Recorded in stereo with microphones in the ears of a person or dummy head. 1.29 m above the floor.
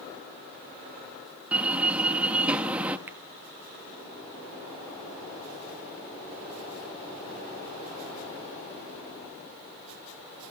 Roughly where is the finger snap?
Centre.